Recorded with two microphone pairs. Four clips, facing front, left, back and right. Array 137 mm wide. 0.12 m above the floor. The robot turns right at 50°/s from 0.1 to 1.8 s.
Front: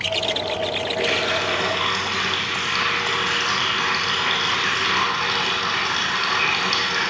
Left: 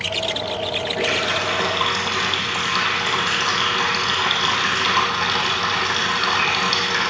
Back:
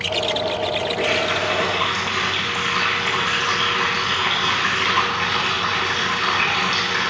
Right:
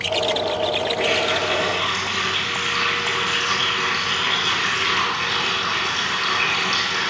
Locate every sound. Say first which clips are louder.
1.0 s a running tap: right 1 dB, front 1 dB; 60° left, 2.5 m; by 7.1 s 105° left, 2.5 m